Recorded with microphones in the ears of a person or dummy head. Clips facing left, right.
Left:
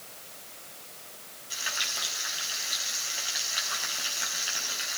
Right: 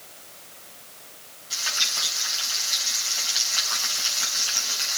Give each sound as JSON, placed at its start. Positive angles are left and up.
{"t": 1.5, "sound": "frying", "side_deg": 15, "distance_m": 5.0}